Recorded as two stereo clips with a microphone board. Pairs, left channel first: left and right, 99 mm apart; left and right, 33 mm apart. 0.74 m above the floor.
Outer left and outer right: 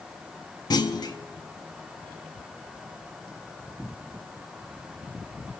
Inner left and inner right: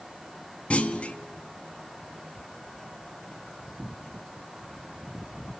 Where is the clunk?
45° left (ahead or behind), 0.8 m.